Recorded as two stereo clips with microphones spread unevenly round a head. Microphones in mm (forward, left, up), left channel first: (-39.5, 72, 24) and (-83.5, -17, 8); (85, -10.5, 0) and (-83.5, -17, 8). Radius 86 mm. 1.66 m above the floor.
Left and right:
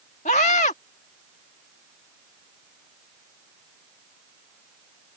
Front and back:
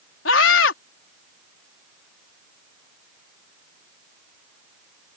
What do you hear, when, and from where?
0.2 s a scream: 25° left